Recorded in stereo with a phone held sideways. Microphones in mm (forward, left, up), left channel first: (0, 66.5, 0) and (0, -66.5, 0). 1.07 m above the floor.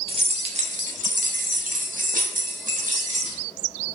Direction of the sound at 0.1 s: 40° right (ahead or behind).